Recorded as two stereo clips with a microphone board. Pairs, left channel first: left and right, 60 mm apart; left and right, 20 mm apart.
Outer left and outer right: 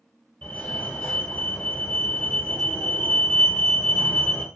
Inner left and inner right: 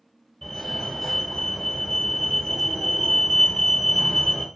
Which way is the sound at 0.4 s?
20° left (ahead or behind).